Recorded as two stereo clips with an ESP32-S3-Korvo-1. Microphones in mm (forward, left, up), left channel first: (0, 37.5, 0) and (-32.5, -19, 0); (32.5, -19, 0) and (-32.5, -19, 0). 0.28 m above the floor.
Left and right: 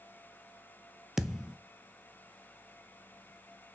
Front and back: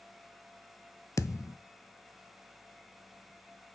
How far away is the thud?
About 0.6 m.